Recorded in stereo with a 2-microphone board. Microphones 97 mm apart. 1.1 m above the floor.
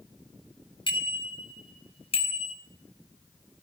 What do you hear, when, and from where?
0.9 s a bicycle bell: 55° left (ahead or behind), 4.5 m; by 2.5 s 85° left, 3.5 m